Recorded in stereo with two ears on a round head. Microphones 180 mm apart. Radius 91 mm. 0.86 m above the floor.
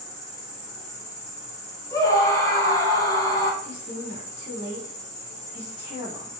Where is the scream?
20° left (ahead or behind), 0.8 m.